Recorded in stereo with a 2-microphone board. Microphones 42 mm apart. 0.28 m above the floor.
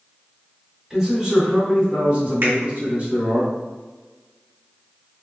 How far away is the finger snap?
About 1.9 m.